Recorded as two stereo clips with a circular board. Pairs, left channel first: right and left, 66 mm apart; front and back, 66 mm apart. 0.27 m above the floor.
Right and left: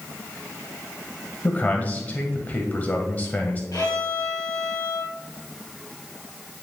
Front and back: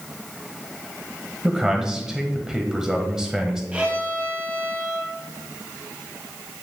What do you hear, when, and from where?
1.4 s a man speaking: 110° right, 1.1 m
3.7 s a violin: 110° right, 2.5 m